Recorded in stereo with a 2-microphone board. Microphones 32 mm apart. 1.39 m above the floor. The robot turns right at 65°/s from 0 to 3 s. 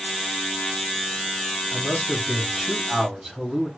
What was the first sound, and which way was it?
A man speaking, 105° left.